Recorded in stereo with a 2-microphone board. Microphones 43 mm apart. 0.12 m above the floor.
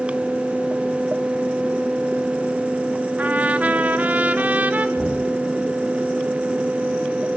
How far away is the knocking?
About 8 m.